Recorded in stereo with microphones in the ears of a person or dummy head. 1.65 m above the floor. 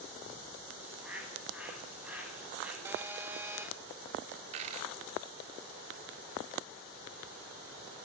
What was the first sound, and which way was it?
A bird, 5° right (ahead or behind).